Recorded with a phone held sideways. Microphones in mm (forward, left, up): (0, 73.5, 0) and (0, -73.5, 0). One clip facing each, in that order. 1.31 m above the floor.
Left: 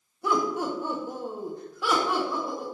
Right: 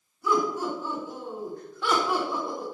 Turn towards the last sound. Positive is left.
turn(degrees=-25)  # may be behind; listen again after turning